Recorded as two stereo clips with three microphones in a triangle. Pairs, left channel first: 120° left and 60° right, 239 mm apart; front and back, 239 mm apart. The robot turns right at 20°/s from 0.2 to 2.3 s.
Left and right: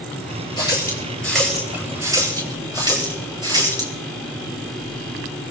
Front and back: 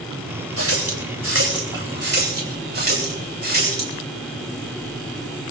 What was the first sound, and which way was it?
A running tap, 170° right.